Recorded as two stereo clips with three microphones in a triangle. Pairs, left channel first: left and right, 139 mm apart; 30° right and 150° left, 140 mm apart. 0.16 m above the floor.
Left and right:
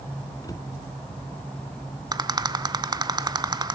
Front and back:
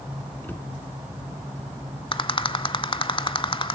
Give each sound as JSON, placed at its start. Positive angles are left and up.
{"t": 0.4, "sound": "a cupboard door", "azimuth_deg": 40, "distance_m": 1.2}
{"t": 2.1, "sound": "a rattle", "azimuth_deg": -50, "distance_m": 0.7}